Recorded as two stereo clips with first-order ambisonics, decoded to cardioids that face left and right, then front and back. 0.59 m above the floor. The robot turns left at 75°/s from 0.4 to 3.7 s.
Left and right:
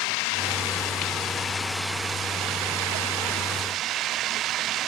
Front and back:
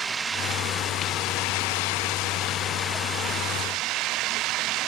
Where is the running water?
110° left; by 4.9 s 140° right.